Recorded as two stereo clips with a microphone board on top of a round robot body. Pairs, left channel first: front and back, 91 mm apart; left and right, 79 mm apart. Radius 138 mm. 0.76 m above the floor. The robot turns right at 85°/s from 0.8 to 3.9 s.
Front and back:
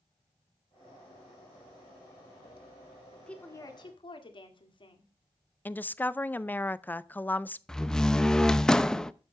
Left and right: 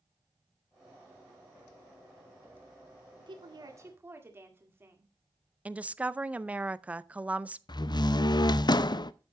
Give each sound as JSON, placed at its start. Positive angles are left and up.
{"t": 3.2, "sound": "a woman speaking", "azimuth_deg": -90, "distance_m": 2.0}
{"t": 5.7, "sound": "a woman speaking", "azimuth_deg": -40, "distance_m": 0.6}
{"t": 7.7, "sound": "a door slam", "azimuth_deg": 85, "distance_m": 0.6}